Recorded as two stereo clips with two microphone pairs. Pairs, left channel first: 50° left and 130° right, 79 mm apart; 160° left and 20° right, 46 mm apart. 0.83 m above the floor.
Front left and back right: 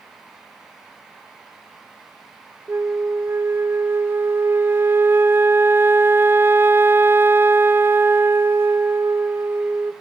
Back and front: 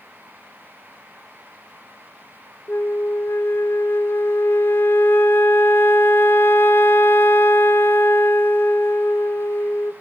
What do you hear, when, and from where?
2.7 s a flute: 175° left, 0.6 m